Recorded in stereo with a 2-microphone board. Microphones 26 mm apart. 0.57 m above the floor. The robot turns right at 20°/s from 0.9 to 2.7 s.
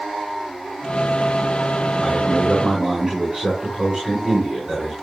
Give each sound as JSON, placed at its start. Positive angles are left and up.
{"t": 2.0, "sound": "a man speaking", "side_deg": -5, "distance_m": 5.0}